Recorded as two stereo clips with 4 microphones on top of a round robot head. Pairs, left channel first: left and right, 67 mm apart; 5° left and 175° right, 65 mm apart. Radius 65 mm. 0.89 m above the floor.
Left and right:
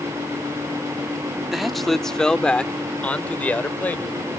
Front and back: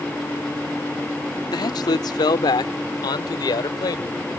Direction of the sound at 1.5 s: 5° right.